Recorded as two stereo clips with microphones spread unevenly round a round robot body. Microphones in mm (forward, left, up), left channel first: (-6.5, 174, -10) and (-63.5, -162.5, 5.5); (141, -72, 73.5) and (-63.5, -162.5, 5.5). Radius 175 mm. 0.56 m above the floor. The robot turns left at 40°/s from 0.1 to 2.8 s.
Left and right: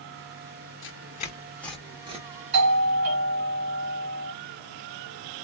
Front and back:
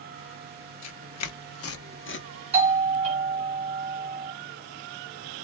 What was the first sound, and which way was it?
Tearing paper, 30° left.